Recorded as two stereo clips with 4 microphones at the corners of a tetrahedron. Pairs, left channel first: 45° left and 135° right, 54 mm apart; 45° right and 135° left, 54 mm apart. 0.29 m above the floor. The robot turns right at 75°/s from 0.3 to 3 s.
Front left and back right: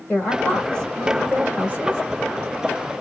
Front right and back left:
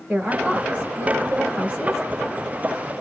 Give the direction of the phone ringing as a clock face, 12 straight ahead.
No phone ringing in this recording.